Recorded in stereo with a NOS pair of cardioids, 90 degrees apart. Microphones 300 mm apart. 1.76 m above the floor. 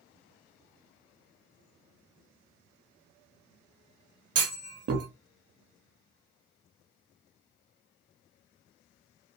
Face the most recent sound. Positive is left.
turn(degrees=-55)